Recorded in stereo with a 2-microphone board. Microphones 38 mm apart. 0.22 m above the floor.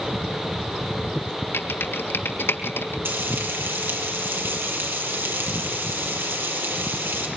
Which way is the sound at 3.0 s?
75° right (ahead or behind).